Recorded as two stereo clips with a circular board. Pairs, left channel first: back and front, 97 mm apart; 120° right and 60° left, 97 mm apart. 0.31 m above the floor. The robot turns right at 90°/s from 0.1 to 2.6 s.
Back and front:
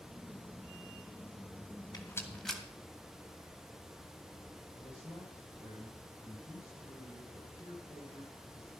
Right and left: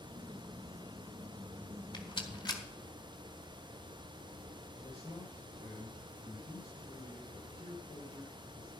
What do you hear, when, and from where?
1.9 s a rattle: 140° right, 2.5 m; by 2.6 s 85° right, 2.5 m
4.8 s a man speaking: 115° right, 7.5 m